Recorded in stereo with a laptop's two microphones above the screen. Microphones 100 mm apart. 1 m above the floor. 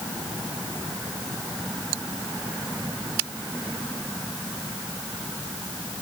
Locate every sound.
Only background noise.